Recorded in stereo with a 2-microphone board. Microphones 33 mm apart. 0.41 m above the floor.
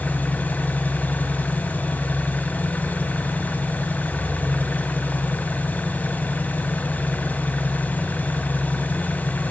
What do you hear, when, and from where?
0.0 s an engine running: 70° left (ahead or behind), 2.5 m